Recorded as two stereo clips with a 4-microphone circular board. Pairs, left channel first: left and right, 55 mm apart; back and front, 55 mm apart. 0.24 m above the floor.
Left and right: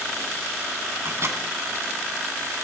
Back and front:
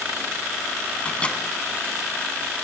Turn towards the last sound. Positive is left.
turn(degrees=-115)